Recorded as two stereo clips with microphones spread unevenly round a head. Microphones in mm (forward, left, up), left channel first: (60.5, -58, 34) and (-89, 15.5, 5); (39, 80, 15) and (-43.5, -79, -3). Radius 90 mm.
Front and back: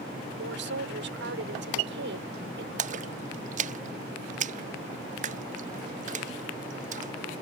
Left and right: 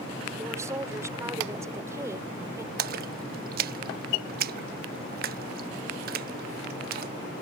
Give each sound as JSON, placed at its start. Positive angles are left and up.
{"t": 0.4, "sound": "a woman speaking", "azimuth_deg": 165}
{"t": 2.8, "sound": "a splash", "azimuth_deg": -160}